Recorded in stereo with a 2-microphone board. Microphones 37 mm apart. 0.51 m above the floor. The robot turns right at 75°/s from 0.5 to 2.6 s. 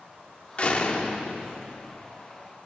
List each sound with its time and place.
0.6 s a door slam: 100° left, 0.8 m; by 2.2 s 140° right, 0.8 m